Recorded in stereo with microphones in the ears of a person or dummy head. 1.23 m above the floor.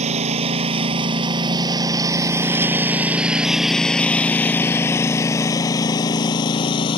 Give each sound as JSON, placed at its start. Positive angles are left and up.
{"t": 0.0, "sound": "a lawn mower", "side_deg": -30}